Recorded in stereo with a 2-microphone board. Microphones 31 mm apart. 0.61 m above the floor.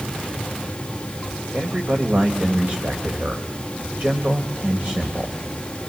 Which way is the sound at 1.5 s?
50° right (ahead or behind).